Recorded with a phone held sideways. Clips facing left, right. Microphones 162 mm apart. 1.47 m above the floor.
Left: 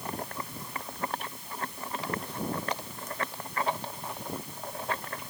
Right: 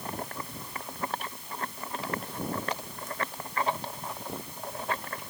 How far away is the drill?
No drill in this recording.